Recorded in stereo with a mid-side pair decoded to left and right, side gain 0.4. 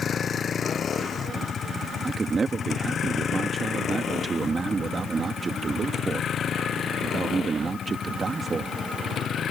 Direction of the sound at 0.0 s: 50° left.